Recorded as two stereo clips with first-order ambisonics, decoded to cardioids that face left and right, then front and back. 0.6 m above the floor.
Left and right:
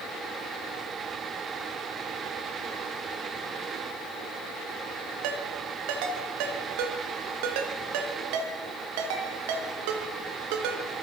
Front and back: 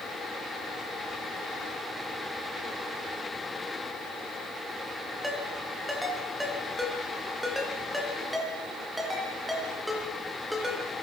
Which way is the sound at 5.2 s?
90° right.